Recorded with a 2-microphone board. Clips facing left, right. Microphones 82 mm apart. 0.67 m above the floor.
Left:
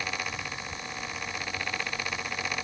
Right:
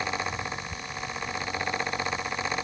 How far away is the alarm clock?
I don't hear an alarm clock.